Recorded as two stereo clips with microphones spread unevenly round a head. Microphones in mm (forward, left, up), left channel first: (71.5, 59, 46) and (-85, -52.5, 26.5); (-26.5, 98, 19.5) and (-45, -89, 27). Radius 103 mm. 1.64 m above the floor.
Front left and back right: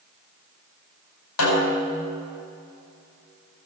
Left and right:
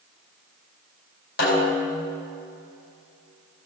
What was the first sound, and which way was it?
A snare drum, 40° left.